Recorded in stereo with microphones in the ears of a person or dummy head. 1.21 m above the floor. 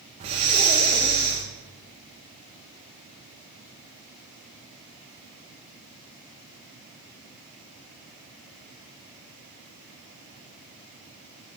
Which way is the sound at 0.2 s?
15° right (ahead or behind).